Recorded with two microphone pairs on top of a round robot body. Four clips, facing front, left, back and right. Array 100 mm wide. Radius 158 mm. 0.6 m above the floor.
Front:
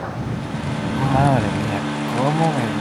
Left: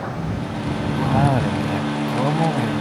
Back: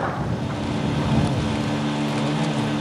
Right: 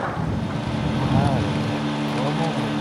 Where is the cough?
10° left.